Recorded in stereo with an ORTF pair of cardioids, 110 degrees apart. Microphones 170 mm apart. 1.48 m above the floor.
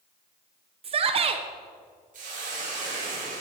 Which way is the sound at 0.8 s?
35° right.